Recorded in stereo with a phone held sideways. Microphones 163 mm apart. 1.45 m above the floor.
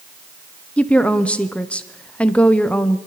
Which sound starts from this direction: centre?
A woman speaking, at 0.8 s.